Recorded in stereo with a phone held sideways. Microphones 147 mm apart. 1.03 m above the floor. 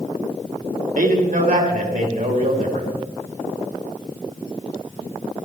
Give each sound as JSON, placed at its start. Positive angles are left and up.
{"t": 0.9, "sound": "a man speaking", "side_deg": -70, "distance_m": 3.0}